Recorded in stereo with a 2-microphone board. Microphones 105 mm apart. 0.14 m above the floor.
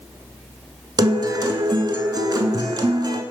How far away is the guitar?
About 0.6 m.